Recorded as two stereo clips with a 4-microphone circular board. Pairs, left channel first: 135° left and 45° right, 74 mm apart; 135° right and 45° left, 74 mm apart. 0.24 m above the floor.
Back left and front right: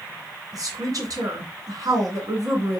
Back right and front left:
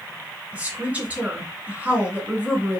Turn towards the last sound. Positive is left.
turn(degrees=-25)